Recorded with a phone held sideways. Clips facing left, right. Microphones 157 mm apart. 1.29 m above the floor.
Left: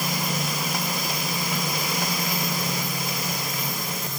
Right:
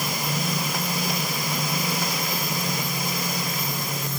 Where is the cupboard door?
I don't hear a cupboard door.